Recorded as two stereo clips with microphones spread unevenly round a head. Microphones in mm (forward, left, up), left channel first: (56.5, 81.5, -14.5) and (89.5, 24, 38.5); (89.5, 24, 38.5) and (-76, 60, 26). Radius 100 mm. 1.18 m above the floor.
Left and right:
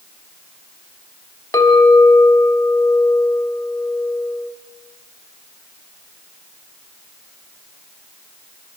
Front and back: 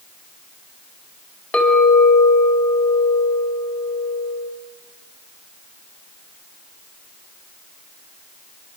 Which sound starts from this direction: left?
A clink, at 1.5 s.